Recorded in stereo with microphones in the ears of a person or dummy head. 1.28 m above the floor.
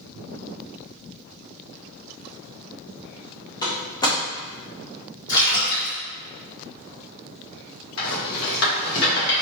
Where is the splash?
20° left (ahead or behind), 1.7 m.